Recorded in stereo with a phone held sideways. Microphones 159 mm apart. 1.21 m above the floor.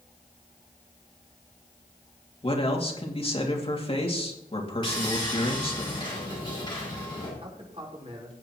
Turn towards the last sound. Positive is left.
turn(degrees=-40)  # may be behind; listen again after turning